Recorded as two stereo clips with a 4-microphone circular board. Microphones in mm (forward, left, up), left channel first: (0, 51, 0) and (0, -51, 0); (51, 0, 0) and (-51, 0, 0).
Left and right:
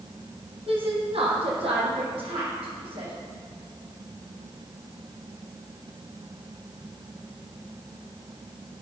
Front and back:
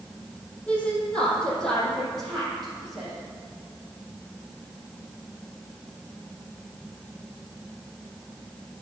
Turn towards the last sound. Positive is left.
turn(degrees=-90)